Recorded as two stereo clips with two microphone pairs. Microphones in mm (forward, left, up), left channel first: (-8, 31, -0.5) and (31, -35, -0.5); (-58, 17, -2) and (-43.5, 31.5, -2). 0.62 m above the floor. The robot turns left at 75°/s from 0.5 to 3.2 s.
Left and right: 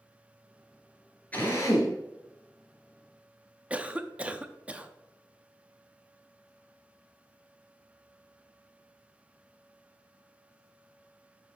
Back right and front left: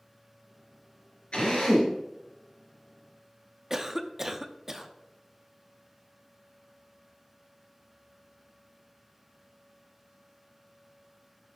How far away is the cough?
About 0.6 m.